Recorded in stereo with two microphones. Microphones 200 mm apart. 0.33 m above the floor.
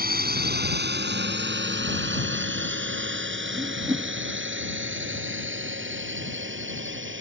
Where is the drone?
50° right (ahead or behind); by 7.2 s 75° right (ahead or behind).